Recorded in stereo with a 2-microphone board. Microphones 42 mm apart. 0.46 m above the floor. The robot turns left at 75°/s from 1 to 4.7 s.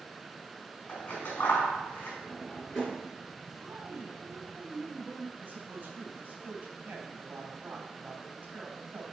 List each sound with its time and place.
0.9 s scissors: 40° left (ahead or behind), 4 m; by 2.1 s 50° left (ahead or behind), 4 m
2.2 s a drawer: 30° left (ahead or behind), 3 m; by 3.1 s 40° right (ahead or behind), 3 m
3.6 s a woman speaking: 85° right, 3 m; by 5.3 s 170° right, 3 m
5.4 s a man speaking: 35° right (ahead or behind), 3 m